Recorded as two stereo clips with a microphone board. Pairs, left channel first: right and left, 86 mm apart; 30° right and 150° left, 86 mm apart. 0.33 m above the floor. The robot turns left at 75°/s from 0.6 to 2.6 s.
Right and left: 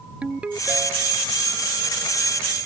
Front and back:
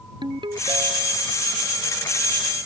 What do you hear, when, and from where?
0.2 s a ringtone: 165° left; by 1.3 s 115° left